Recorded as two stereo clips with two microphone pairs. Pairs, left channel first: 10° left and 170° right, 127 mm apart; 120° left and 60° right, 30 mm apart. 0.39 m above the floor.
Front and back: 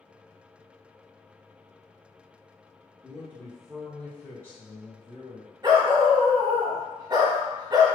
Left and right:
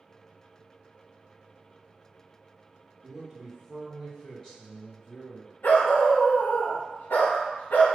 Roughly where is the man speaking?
Behind right.